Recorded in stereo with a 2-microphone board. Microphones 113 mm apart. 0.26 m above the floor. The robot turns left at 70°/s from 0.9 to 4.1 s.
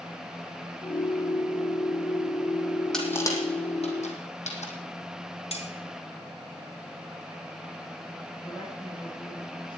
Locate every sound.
2.9 s crushing: 5° left (ahead or behind), 2.5 m; by 4.7 s 85° left, 2.5 m
5.5 s cutlery clinking: 65° left (ahead or behind), 1.4 m
8.4 s a woman speaking: 50° left (ahead or behind), 7.5 m